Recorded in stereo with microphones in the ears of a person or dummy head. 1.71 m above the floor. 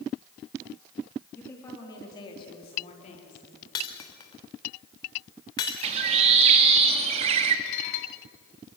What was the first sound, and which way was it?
A woman speaking, 10° left (ahead or behind).